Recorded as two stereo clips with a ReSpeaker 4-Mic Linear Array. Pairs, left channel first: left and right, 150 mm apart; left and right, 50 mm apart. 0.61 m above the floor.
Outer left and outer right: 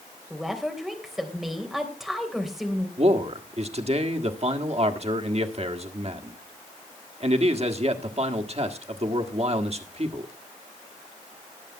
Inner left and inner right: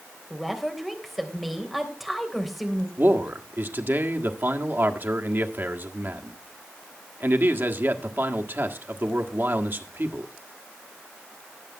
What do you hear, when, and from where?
0.3 s a woman speaking: centre (ahead or behind), 3 m
3.0 s a man speaking: 45° right (ahead or behind), 1.6 m